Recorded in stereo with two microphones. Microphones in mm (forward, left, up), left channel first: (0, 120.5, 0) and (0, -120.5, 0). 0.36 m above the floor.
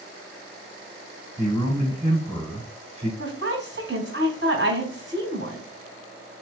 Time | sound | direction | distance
1.4 | a man speaking | 30° right (ahead or behind) | 2 m
3.2 | a woman speaking | 50° right (ahead or behind) | 2 m